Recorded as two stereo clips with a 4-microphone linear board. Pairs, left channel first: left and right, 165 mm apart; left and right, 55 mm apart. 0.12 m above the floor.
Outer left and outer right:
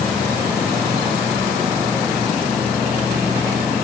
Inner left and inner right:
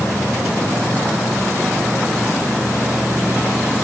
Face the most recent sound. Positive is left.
No sound to turn to.